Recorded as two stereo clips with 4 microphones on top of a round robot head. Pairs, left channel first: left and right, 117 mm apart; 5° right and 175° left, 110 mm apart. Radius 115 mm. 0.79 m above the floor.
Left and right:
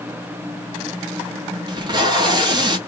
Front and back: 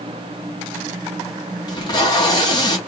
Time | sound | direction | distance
1.7 | tape being pulled | 45° right | 1.3 m